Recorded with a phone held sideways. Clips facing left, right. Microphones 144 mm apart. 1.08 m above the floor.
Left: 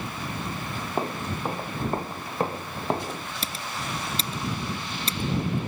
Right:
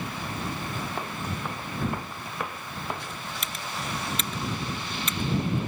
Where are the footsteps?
30° left (ahead or behind); by 3.3 s 35° left (ahead or behind).